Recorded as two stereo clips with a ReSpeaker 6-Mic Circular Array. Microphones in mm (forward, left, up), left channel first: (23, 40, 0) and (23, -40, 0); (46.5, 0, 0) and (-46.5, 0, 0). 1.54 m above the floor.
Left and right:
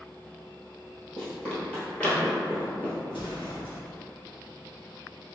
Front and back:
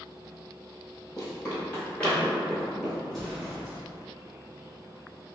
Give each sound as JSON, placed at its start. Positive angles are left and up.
{"t": 1.2, "sound": "running footsteps", "azimuth_deg": 30, "distance_m": 1.9}
{"t": 3.1, "sound": "an explosion", "azimuth_deg": 85, "distance_m": 1.2}